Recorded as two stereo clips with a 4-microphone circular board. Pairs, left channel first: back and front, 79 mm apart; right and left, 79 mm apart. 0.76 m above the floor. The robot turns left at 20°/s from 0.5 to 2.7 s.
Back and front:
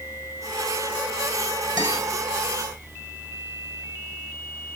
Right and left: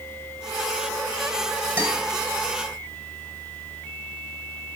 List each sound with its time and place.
1.8 s a guitar: 30° left, 2 m; by 2.0 s 25° left, 2 m